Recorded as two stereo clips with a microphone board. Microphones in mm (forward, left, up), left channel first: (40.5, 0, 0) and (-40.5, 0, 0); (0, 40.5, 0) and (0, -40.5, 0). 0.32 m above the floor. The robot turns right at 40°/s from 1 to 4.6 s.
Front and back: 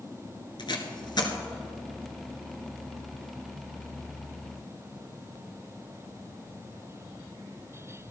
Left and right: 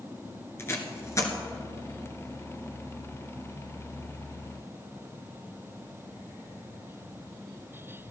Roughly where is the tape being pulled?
Ahead left.